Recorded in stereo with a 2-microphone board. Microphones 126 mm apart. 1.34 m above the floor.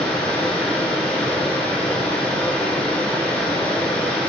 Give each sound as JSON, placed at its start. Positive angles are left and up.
{"t": 0.0, "sound": "running water", "side_deg": 10, "distance_m": 1.5}